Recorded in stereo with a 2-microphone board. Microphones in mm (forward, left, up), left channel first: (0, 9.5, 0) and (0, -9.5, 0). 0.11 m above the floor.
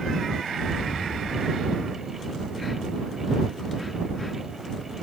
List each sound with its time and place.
0.6 s an explosion: 50° right (ahead or behind)